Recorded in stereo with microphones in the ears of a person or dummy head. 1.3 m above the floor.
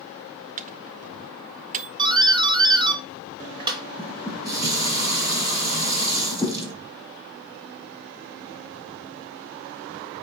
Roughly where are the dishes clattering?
Right.